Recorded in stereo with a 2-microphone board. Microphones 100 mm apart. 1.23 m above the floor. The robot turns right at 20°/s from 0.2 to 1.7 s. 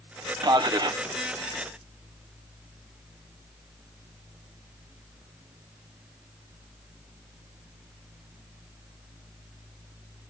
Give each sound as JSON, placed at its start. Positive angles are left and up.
{"t": 0.4, "sound": "a man speaking", "side_deg": -45, "distance_m": 0.7}